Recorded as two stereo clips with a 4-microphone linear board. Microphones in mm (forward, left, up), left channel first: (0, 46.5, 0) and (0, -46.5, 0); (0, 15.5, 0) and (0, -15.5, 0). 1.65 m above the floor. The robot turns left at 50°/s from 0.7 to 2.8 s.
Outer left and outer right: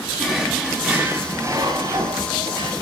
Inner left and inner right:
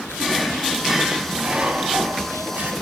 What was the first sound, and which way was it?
A drawer, 5° right.